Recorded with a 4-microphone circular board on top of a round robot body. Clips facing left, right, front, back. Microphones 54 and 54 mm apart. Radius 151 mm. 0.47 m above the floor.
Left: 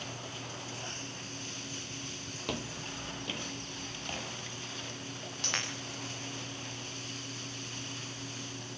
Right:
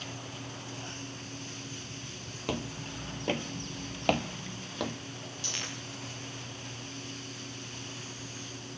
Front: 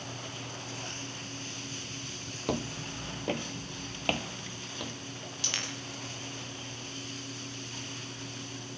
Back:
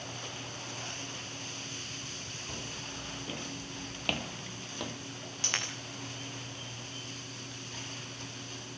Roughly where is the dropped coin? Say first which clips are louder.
Left 4 dB, back 2 dB; behind left.